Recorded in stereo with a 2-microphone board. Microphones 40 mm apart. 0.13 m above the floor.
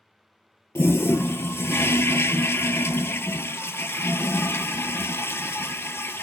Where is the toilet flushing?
75° left (ahead or behind), 0.6 m.